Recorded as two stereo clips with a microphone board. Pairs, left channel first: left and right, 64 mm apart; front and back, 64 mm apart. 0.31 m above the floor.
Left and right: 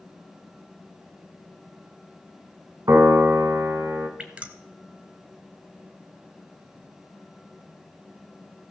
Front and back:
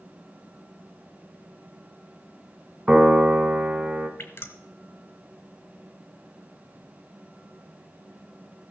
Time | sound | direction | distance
2.9 | a piano | 100° right | 1.7 m
4.2 | dripping | 30° right | 1.1 m